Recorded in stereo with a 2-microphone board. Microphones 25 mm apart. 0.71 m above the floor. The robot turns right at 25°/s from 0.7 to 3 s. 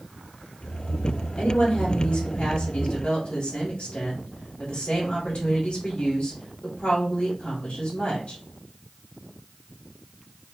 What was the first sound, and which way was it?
A woman speaking, 70° left.